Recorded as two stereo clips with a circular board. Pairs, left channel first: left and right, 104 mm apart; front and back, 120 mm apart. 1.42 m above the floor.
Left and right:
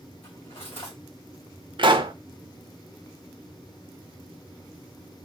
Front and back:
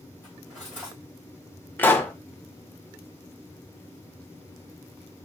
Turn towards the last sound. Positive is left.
turn(degrees=-70)